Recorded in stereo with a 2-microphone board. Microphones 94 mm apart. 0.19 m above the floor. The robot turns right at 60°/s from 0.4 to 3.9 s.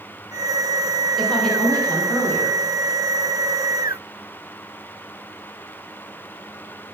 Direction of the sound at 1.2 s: 5° left (ahead or behind).